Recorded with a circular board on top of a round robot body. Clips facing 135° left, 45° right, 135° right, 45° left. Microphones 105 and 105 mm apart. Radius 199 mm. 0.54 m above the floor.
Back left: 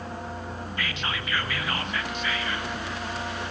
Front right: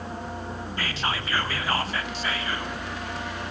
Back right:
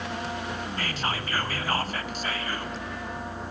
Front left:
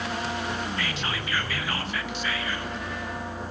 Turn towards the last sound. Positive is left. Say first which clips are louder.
# front right 3 dB, even
turn(degrees=-95)